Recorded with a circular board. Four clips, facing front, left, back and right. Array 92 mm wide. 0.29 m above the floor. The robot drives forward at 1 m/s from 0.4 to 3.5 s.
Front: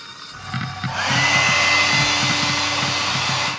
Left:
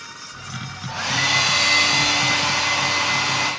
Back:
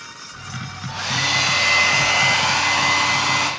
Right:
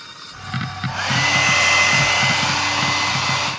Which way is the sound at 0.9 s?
25° right.